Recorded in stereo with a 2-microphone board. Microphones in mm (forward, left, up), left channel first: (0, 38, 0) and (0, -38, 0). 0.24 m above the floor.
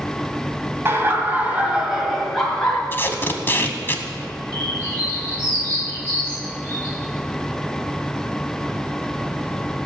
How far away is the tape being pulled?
About 0.9 m.